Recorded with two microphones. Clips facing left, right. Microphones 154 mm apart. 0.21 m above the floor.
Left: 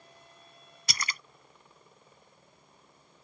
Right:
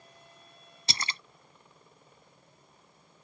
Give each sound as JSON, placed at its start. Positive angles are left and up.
{"t": 0.9, "sound": "a splash", "side_deg": -30}